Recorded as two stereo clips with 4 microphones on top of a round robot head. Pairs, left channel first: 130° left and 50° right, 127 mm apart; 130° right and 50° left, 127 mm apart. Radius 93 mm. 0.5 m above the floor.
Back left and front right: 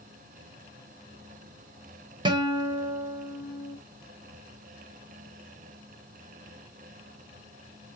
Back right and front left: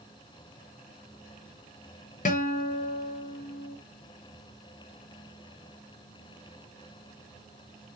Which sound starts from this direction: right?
A guitar, at 2.2 s.